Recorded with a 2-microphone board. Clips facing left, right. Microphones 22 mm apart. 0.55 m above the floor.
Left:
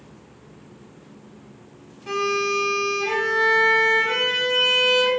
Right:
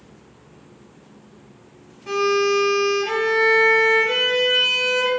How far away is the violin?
About 0.9 m.